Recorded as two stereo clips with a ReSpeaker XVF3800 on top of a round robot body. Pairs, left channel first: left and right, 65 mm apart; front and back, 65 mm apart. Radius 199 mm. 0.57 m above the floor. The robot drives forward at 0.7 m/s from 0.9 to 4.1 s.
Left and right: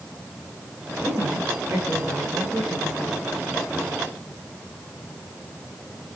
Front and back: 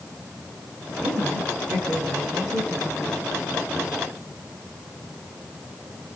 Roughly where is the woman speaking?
Behind.